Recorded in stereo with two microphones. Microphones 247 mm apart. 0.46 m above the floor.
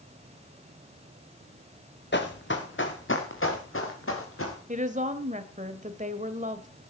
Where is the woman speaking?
30° right (ahead or behind), 1.9 m.